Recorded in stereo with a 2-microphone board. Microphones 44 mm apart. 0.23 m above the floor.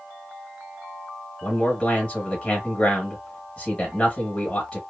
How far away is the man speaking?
About 1.0 m.